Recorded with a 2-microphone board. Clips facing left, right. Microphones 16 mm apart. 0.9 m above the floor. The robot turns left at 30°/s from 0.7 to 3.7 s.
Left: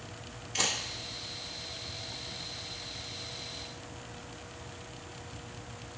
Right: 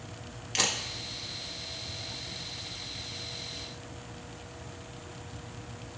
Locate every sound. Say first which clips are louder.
0.6 s a camera shutter: right 2 dB; 60° right (ahead or behind), 1.6 m